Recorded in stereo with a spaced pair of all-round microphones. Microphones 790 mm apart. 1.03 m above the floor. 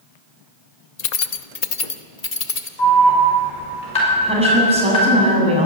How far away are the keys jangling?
About 0.8 m.